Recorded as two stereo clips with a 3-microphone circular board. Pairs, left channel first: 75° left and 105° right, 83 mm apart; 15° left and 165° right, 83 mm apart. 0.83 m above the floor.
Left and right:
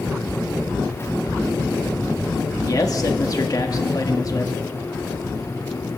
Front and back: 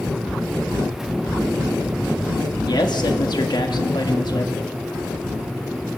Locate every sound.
2.7 s a man speaking: 35° left, 1.2 m